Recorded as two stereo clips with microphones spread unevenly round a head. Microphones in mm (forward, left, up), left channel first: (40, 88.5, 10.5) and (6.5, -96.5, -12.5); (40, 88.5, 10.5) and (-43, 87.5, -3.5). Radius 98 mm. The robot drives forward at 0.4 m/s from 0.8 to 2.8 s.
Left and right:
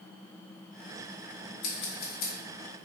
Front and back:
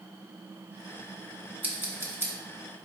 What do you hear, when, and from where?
1.6 s scissors: 120° left, 1.1 m; by 2.3 s 130° left, 1.3 m